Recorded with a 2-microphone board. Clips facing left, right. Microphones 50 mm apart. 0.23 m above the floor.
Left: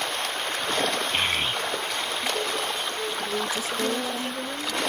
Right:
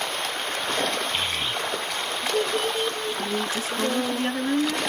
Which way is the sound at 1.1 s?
40° left (ahead or behind).